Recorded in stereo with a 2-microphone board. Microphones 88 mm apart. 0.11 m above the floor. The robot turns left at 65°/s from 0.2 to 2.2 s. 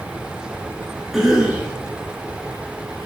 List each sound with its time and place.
1.1 s a cough: 5° right (ahead or behind), 1.5 m; by 1.7 s 15° right (ahead or behind), 1.5 m